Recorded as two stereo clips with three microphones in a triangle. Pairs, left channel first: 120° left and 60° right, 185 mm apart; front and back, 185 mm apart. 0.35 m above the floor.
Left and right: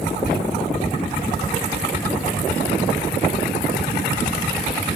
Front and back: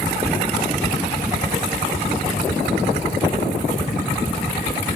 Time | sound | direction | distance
0.2 | whispering | 100° left | 3 m